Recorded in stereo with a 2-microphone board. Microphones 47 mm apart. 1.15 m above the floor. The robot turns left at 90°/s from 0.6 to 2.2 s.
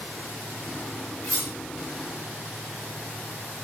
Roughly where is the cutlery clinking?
Left.